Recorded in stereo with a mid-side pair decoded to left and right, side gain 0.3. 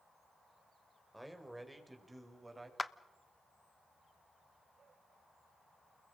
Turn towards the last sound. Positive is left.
turn(degrees=25)